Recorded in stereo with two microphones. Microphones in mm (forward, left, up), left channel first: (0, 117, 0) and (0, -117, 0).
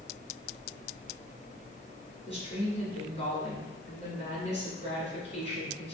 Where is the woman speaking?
25° left (ahead or behind), 1.6 m.